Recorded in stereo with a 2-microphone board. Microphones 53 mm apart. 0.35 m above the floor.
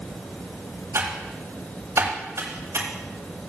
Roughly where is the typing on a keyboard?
Right.